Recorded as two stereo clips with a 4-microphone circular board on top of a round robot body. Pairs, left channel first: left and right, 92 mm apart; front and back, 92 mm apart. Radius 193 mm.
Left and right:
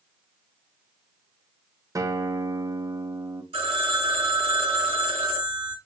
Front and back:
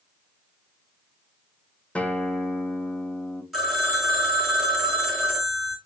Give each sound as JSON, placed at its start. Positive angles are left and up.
{"t": 1.9, "sound": "a guitar", "azimuth_deg": -70, "distance_m": 0.8}
{"t": 3.5, "sound": "a phone ringing", "azimuth_deg": -90, "distance_m": 1.5}